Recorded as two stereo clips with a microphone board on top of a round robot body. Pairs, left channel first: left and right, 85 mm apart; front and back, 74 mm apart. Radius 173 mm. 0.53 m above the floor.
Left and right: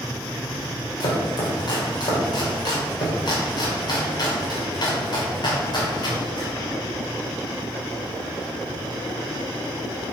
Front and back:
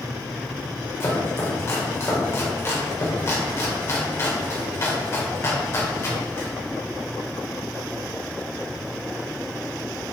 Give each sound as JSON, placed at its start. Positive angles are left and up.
{"t": 1.0, "sound": "chopping", "azimuth_deg": 55, "distance_m": 2.5}